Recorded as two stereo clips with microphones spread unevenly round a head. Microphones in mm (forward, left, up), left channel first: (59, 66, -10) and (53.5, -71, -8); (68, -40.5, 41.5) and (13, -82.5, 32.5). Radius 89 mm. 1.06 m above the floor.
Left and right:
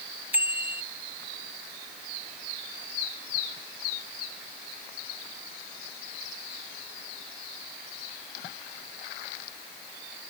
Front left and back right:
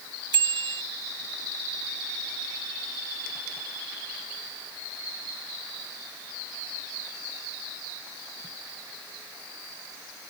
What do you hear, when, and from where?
0.3 s a bicycle bell: 175° right